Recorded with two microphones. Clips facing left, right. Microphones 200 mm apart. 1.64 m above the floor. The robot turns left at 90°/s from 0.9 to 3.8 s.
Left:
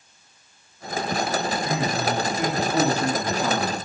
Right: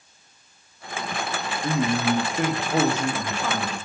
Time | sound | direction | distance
1.6 | a man speaking | 35° right | 1.9 m